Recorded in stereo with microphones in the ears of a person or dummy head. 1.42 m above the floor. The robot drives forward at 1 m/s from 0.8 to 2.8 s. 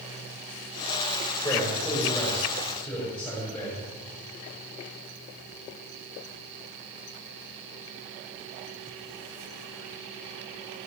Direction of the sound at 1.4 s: 10° left (ahead or behind).